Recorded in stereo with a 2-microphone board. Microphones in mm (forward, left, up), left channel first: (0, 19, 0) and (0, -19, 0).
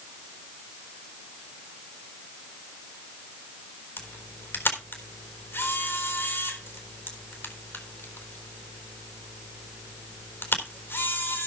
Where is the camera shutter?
75° left (ahead or behind), 3.5 m.